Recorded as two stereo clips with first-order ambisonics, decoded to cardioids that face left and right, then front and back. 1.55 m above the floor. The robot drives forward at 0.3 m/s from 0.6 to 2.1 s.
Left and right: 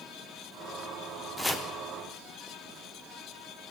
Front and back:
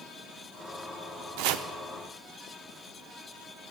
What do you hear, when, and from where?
1.4 s chopping: 170° left, 0.7 m